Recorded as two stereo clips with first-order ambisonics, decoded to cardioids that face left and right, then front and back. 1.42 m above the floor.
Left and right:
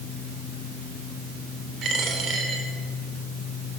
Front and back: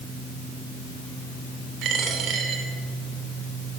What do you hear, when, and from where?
1.8 s a dropped coin: 145° right, 2.5 m